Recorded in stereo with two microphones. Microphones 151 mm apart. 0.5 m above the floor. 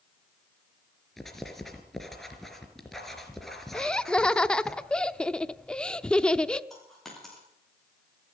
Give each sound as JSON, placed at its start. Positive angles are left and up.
{"t": 1.2, "sound": "writing", "side_deg": 0, "distance_m": 3.5}
{"t": 3.7, "sound": "laughter", "side_deg": 5, "distance_m": 0.7}
{"t": 6.7, "sound": "a dropped coin", "side_deg": 0, "distance_m": 8.0}